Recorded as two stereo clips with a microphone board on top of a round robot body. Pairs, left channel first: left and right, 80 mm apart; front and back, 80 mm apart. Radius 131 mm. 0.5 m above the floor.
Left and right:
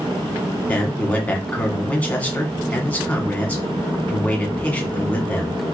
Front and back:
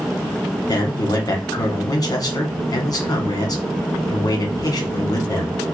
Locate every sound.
0.7 s a man speaking: 25° left, 1.4 m